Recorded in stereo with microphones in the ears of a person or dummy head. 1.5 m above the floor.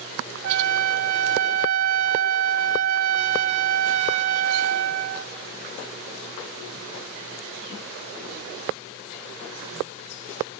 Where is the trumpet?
65° right (ahead or behind), 1.3 m.